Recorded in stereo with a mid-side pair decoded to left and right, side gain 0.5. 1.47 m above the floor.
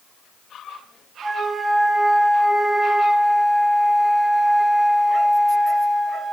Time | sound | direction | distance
1.2 | a flute | 15° right | 4.5 m